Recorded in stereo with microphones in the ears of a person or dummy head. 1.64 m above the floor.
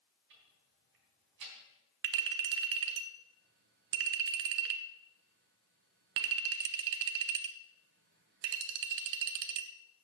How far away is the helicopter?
No helicopter in this recording.